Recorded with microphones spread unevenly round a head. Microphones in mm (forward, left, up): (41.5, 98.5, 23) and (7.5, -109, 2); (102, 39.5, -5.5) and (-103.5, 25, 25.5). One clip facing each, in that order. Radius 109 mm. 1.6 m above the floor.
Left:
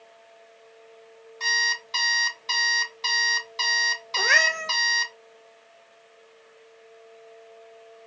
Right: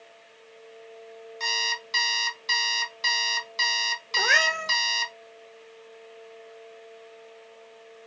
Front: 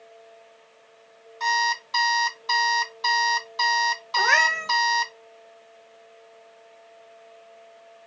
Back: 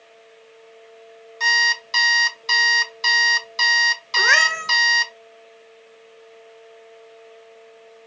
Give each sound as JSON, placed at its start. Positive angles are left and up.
{"t": 1.4, "sound": "an alarm clock", "azimuth_deg": 180, "distance_m": 0.9}
{"t": 4.2, "sound": "a cat meowing", "azimuth_deg": 170, "distance_m": 1.7}